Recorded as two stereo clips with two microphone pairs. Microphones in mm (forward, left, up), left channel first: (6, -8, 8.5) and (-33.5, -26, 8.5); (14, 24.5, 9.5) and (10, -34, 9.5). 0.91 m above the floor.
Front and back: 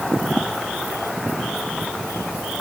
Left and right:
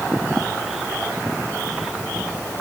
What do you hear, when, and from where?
Only background noise.